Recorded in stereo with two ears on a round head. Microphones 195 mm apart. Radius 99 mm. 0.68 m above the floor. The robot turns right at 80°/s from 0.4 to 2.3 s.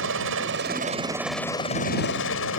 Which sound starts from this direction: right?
A helicopter, at 0.0 s.